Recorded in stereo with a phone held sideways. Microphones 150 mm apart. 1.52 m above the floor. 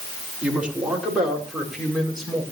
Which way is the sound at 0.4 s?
10° right (ahead or behind).